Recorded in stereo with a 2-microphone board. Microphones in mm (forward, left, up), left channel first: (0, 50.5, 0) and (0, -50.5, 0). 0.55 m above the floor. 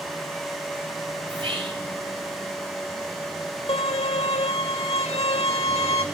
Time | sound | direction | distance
1.3 | whispering | 60° right (ahead or behind) | 3 m
3.7 | a violin | 80° left | 0.8 m